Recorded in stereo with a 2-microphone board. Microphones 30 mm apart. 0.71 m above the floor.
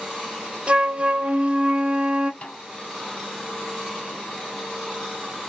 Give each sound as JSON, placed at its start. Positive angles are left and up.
{"t": 0.7, "sound": "a flute", "side_deg": -45, "distance_m": 1.0}
{"t": 2.4, "sound": "a snare drum", "side_deg": 45, "distance_m": 3.0}